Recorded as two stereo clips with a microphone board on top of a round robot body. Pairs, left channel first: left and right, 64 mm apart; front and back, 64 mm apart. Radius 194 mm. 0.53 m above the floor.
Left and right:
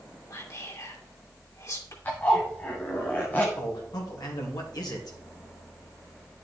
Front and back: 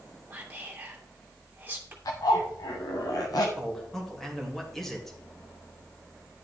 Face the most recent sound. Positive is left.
turn(degrees=85)